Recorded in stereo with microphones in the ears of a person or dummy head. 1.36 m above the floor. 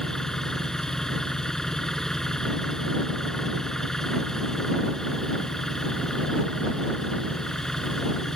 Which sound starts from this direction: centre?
An engine running, at 0.0 s.